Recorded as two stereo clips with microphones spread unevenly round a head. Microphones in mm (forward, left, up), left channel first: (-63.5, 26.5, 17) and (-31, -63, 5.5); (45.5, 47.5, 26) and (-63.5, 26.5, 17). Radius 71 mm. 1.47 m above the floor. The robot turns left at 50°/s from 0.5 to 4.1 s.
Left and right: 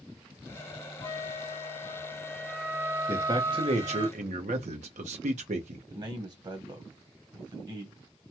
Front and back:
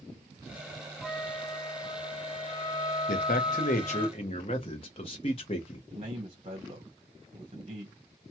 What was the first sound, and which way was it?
A flute, 105° left.